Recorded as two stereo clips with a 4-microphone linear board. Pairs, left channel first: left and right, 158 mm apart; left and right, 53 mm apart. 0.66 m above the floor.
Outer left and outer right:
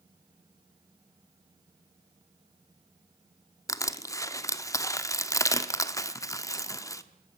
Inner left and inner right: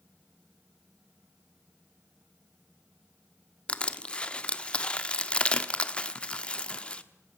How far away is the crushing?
About 1.1 m.